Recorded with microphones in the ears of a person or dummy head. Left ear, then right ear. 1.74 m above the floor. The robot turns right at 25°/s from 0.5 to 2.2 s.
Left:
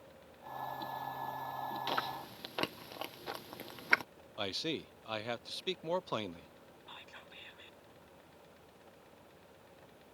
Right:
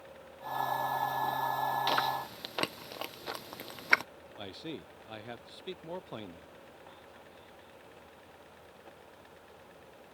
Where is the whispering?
70° left (ahead or behind).